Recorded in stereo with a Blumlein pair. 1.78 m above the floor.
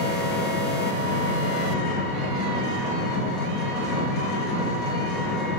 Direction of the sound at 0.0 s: 35° left.